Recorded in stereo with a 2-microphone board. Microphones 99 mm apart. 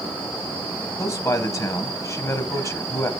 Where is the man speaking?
30° left (ahead or behind), 1.1 m.